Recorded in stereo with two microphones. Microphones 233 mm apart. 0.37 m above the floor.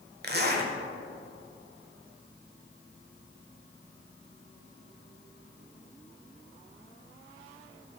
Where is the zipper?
45° right (ahead or behind), 1.0 m.